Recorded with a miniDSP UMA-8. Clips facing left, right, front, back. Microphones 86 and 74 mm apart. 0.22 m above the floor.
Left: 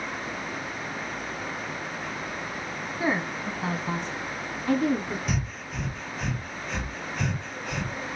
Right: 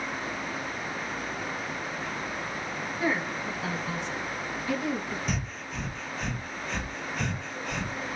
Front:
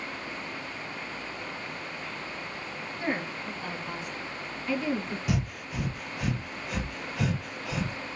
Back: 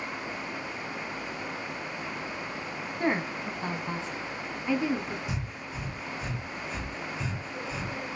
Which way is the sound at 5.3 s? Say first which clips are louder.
Left 2 dB, front 5 dB; straight ahead.